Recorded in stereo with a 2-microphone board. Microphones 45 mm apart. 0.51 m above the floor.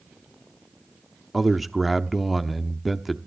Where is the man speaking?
Centre (ahead or behind), 0.9 m.